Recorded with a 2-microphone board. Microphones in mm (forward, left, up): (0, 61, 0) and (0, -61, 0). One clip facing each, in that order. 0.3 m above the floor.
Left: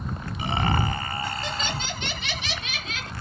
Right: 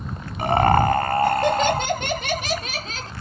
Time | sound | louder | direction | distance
0.4 | laughter | right 9 dB | 55° right (ahead or behind) | ?